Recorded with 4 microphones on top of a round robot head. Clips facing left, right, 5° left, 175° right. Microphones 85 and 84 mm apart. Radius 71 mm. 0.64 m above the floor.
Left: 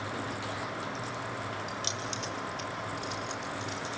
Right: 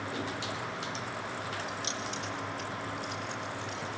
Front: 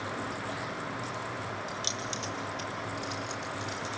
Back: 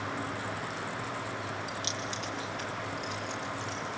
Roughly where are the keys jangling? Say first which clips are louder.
Even, even; ahead left.